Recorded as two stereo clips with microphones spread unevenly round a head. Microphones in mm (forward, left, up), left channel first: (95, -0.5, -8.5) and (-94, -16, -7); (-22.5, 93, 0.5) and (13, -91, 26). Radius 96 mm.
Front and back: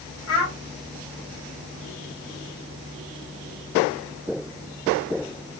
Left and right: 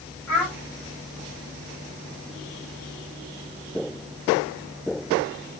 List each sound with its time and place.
0.3 s a child speaking: 20° left, 2.5 m